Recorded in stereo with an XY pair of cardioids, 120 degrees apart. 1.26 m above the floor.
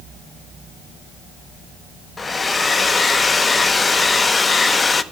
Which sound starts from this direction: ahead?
A hair dryer, at 2.2 s.